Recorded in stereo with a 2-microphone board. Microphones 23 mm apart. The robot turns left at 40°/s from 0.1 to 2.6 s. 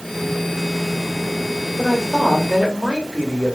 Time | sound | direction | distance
1.8 | a woman speaking | 5° right | 1.5 m